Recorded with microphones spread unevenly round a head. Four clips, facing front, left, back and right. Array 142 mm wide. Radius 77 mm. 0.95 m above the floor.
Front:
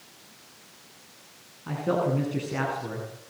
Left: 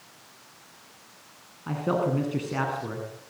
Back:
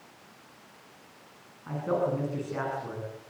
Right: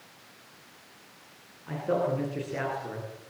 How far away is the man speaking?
About 8.5 m.